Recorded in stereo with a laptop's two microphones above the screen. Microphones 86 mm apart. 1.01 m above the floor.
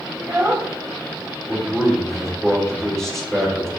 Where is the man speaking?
5° left (ahead or behind), 2.5 m.